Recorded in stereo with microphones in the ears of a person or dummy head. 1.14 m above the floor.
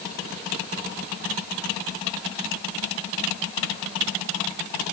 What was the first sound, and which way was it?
Only background noise.